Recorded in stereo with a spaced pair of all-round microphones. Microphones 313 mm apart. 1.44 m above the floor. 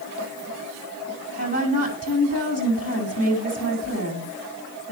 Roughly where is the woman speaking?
Left.